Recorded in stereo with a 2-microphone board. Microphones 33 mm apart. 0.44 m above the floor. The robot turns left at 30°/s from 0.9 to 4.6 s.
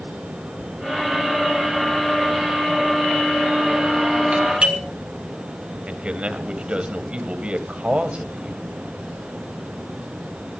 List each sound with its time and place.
4.3 s a doorbell: 40° right (ahead or behind), 3.5 m; by 4.8 s 30° right (ahead or behind), 3.5 m
5.9 s a man speaking: 35° right (ahead or behind), 2 m